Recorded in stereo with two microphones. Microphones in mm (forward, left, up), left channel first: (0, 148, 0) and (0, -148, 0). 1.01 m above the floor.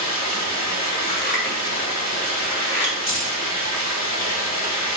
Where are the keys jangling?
45° left (ahead or behind), 1.1 m.